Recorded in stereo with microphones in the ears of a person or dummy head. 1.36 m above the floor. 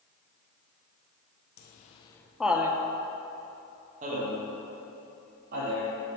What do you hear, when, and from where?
1.6 s laughter: 55° left (ahead or behind), 0.5 m; by 6.0 s 50° right (ahead or behind), 2.5 m